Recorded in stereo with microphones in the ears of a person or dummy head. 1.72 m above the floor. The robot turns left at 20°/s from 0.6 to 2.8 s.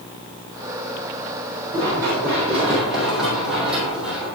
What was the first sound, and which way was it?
Running footsteps, 20° right (ahead or behind).